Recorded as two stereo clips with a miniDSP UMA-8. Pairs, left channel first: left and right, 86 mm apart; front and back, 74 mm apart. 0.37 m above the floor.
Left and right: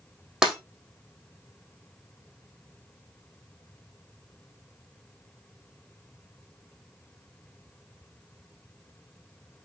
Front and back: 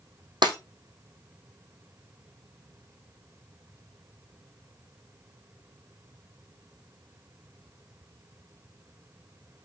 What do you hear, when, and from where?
0.4 s breaking glass: 175° right, 3 m